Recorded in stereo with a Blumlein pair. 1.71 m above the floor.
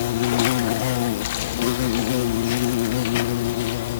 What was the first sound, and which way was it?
An insect, 55° left.